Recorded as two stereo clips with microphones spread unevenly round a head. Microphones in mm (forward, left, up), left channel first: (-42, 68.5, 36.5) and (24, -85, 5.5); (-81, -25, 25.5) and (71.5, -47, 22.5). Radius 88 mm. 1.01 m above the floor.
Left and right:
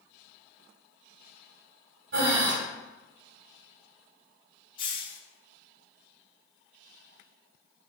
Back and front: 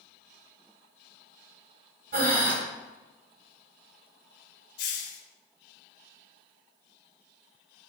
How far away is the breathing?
About 1.7 m.